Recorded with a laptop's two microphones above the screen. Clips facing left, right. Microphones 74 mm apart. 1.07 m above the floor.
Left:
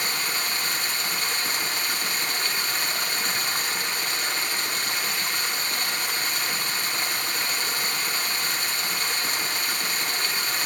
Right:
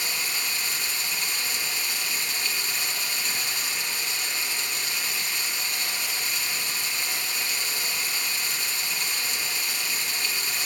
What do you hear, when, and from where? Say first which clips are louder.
0.0 s running water: left 3 dB; 55° left (ahead or behind), 3.5 m